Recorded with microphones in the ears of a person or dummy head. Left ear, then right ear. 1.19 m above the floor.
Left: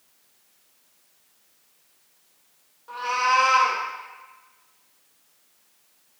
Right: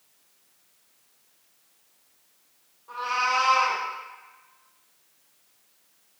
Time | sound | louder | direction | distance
2.9 | a cat meowing | left 3 dB | 25° left (ahead or behind) | 0.9 m